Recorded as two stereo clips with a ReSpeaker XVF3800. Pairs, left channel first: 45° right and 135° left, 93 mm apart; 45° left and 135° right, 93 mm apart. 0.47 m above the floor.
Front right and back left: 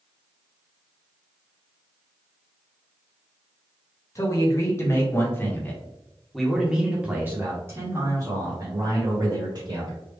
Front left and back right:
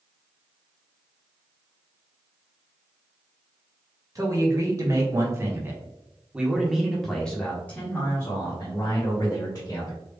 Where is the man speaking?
90° right, 1.6 m; by 10.0 s 95° left, 2.0 m.